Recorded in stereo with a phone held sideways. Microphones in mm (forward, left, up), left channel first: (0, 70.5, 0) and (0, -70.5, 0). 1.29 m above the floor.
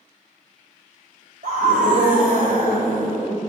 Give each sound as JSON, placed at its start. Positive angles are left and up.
{"t": 1.4, "sound": "a scream", "side_deg": -80, "distance_m": 3.5}